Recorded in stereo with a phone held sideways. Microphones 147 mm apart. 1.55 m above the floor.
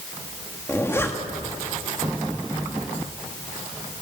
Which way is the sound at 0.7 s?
15° left (ahead or behind).